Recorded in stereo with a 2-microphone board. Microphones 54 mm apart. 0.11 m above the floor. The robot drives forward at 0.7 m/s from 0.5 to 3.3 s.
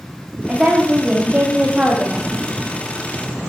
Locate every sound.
0.5 s a woman speaking: 20° right (ahead or behind), 7.5 m; by 2.3 s 25° right (ahead or behind), 6.5 m